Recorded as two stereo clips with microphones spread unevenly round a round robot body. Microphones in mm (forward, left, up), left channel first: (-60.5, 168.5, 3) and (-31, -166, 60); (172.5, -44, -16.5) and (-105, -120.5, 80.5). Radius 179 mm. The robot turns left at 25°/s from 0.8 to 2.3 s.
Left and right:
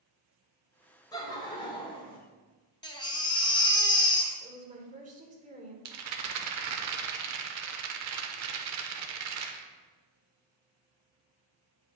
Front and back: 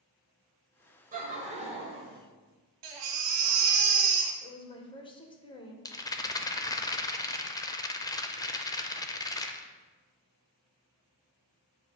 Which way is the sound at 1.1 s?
125° left.